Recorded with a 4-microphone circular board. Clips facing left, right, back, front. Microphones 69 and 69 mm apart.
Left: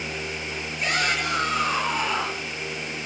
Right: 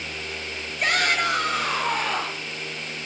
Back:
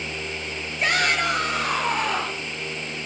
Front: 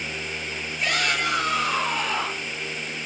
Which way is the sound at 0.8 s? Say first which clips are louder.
Right 3 dB, back 3 dB; 135° right.